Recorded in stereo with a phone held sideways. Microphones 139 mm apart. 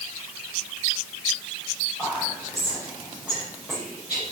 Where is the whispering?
5° right (ahead or behind), 5 m.